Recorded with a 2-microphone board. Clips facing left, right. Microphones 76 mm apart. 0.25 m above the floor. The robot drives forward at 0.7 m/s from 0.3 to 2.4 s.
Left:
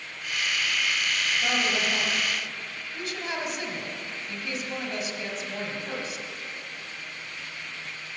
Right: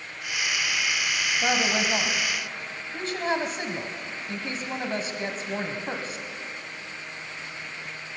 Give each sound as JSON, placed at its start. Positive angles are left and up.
{"t": 1.4, "sound": "a woman speaking", "side_deg": -35, "distance_m": 1.4}